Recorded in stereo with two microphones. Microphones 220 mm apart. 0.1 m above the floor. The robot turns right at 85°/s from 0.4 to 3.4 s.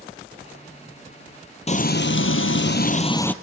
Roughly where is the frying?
Ahead left.